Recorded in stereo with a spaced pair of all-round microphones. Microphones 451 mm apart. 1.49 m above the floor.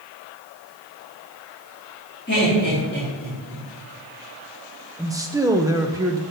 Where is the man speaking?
10° right (ahead or behind), 0.6 m.